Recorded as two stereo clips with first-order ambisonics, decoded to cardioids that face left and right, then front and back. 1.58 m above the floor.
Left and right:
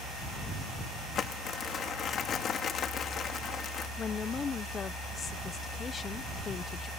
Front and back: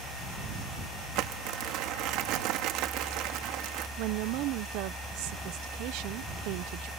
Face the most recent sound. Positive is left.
turn(degrees=160)